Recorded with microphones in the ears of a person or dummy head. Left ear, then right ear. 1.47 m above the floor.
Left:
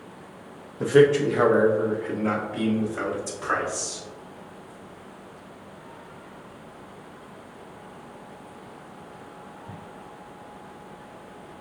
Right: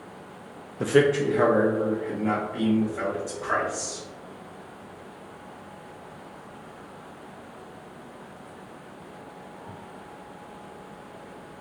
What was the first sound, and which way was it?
A man speaking, 20° right (ahead or behind).